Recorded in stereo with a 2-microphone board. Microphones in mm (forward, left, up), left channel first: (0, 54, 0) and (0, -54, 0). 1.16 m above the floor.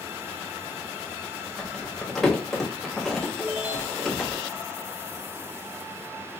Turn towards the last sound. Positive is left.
turn(degrees=-15)  # may be behind; listen again after turning